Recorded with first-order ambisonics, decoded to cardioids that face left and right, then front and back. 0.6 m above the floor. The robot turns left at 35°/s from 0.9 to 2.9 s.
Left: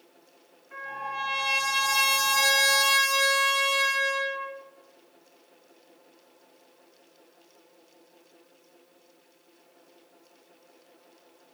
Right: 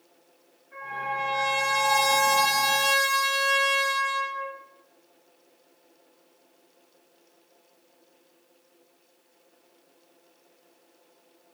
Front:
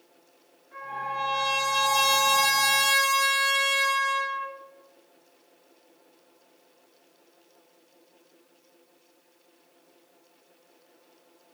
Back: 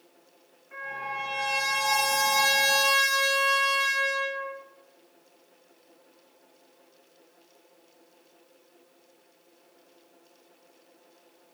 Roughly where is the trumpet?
Behind left.